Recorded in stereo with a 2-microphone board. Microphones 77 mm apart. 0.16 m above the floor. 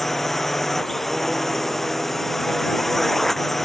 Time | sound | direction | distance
0.0 | a drone | centre (ahead or behind) | ?